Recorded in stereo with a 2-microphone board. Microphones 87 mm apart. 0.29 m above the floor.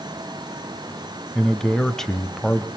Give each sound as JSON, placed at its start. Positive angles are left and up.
{"t": 1.4, "sound": "a man speaking", "side_deg": 5, "distance_m": 1.1}